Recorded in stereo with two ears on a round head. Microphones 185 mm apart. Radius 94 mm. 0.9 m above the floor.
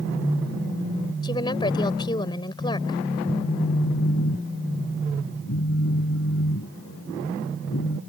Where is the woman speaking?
20° left (ahead or behind).